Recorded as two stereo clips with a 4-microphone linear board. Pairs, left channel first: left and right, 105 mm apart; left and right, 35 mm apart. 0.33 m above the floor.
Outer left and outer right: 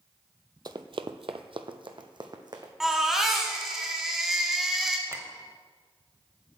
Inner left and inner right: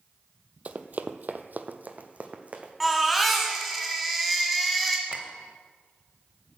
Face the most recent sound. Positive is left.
turn(degrees=-25)  # may be behind; listen again after turning